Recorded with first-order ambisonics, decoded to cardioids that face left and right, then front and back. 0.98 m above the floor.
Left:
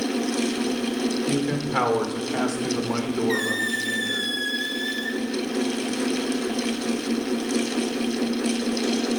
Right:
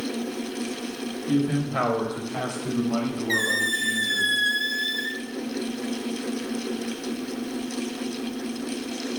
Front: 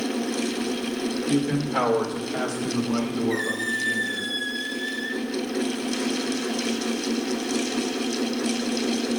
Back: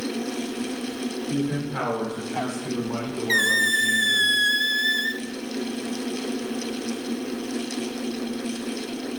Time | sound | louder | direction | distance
1.3 | a man speaking | left 1 dB, front 4 dB | 65° left | 3 m
3.3 | a squeak | right 4 dB, back 9 dB | 170° right | 0.6 m